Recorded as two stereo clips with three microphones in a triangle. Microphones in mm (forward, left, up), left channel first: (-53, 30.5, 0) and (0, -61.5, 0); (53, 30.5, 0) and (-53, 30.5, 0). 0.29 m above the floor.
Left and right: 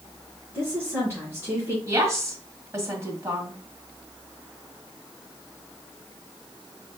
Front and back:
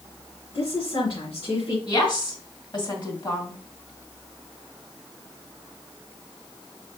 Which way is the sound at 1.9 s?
10° right.